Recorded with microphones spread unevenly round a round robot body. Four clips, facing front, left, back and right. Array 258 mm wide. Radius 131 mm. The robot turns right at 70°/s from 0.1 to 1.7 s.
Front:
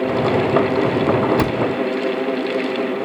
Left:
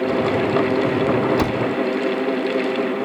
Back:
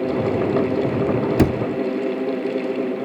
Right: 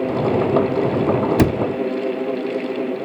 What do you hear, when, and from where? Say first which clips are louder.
1.4 s a cupboard door: right 3 dB, back 1 dB; 130° right, 0.7 m; by 1.6 s 115° right, 0.7 m